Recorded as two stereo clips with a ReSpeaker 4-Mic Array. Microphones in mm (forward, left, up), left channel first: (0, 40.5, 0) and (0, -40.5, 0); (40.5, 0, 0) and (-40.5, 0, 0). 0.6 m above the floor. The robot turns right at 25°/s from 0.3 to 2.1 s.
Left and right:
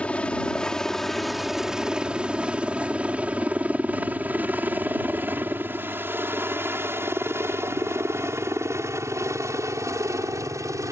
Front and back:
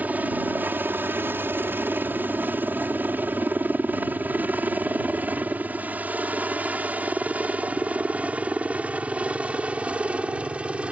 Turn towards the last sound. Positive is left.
turn(degrees=-110)